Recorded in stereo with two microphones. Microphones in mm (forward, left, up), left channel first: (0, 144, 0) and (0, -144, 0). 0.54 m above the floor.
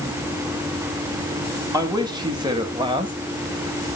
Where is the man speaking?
15° right (ahead or behind), 3 m.